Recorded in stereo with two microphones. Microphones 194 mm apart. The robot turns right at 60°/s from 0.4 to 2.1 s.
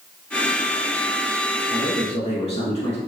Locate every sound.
1.7 s a man speaking: 35° left (ahead or behind), 1.2 m